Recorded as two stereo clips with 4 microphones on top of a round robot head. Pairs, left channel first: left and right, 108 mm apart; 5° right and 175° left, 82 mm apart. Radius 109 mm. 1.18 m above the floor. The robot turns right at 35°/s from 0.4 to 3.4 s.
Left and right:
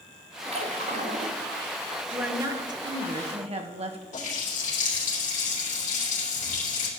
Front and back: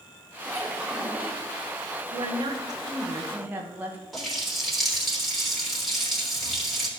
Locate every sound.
0.5 s a splash: 120° right, 1.9 m; by 1.4 s 90° right, 1.9 m
2.1 s a woman speaking: 160° right, 1.4 m; by 4.0 s 115° right, 1.4 m
4.1 s a running tap: 85° left, 3.5 m